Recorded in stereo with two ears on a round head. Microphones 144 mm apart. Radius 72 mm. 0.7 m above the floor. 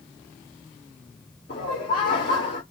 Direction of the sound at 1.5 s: 55° left (ahead or behind).